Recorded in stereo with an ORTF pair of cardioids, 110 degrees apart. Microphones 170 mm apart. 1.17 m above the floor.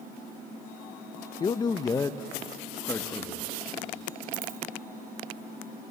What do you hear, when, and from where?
1.4 s a man speaking: 25° left, 0.7 m; by 3.5 s 15° left, 2.0 m
4.3 s a dropped coin: 65° right, 2.5 m